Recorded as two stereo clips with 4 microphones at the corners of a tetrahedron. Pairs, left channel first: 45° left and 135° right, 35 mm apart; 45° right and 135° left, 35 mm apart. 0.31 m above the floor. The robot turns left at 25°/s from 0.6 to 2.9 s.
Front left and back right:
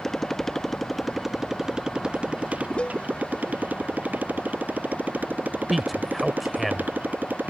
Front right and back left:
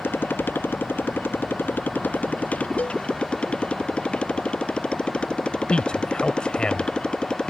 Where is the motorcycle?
35° right; by 7.5 s 105° right.